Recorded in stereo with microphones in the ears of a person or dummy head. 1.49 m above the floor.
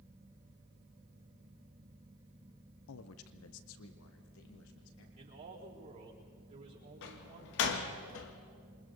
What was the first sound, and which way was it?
A man speaking, 85° left.